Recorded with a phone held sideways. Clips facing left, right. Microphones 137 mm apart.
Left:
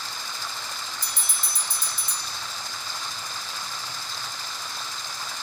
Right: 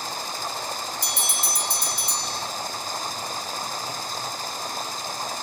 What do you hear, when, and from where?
0.0 s running water: 45° right (ahead or behind)
1.0 s a bell: 70° right (ahead or behind)